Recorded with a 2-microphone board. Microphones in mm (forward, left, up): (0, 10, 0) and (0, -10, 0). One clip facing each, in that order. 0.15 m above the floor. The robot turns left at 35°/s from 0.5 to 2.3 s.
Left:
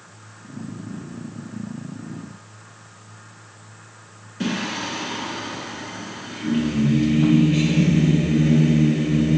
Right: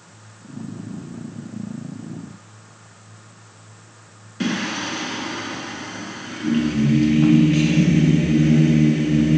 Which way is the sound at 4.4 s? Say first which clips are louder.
Right 2 dB; 25° right (ahead or behind).